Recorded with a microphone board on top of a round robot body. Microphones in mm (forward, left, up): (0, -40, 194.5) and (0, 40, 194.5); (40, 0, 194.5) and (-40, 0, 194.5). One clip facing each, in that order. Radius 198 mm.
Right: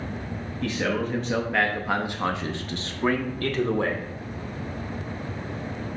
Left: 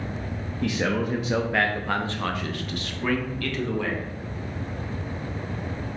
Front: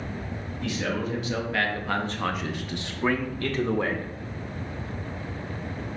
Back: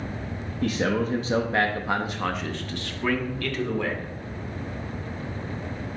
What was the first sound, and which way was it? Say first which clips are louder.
A man speaking: left 1 dB, back 5 dB; 160° left.